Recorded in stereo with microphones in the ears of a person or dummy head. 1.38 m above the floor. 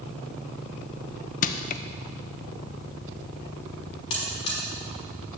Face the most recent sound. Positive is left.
turn(degrees=30)  # may be behind; listen again after turning